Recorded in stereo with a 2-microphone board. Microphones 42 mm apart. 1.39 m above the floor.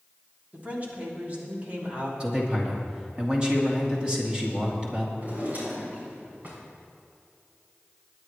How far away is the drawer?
About 4.5 m.